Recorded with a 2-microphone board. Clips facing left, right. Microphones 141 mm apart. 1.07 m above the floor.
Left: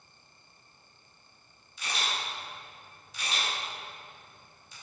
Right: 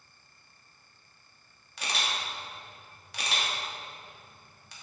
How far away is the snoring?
I don't hear snoring.